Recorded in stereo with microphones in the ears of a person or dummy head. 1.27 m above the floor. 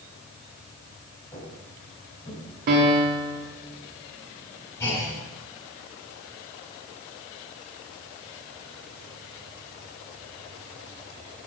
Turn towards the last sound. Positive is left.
turn(degrees=20)  # may be behind; listen again after turning